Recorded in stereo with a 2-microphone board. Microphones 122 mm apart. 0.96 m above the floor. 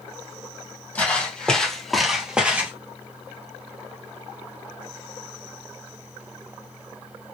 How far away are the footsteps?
About 1.3 m.